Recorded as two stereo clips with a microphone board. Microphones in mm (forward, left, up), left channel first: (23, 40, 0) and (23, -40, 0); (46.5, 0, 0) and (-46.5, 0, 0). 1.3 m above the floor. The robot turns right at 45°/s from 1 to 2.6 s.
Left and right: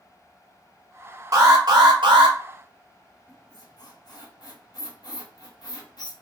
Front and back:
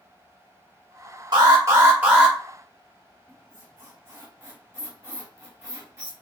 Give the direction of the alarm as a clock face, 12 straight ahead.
5 o'clock.